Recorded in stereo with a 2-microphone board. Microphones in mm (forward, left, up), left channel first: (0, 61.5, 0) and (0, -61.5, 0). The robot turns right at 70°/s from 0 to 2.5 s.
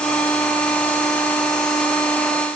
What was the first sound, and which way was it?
Only background noise.